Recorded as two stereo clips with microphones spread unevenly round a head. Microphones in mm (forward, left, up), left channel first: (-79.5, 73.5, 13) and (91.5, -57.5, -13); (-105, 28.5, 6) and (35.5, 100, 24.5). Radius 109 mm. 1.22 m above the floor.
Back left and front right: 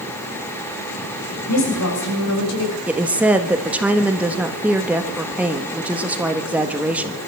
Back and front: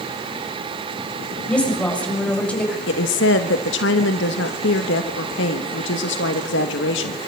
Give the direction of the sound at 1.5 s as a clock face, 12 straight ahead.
8 o'clock.